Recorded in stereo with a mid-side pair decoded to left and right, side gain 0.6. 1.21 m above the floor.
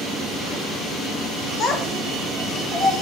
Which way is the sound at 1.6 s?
40° left.